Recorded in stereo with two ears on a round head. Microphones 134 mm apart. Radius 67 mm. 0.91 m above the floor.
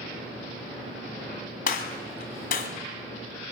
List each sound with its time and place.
1.7 s a gunshot: 60° left (ahead or behind), 1.9 m